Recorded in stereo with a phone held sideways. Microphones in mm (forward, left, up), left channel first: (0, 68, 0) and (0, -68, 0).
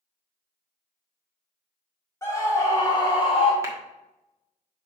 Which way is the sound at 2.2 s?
20° left (ahead or behind).